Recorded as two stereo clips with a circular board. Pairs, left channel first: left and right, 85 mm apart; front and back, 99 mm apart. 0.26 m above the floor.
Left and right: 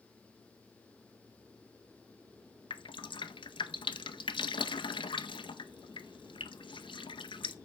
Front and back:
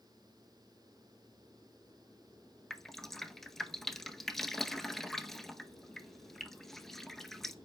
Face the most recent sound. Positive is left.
turn(degrees=85)